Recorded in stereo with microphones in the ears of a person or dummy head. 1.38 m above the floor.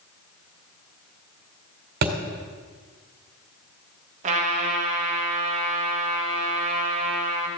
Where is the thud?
50° right (ahead or behind), 1.9 m.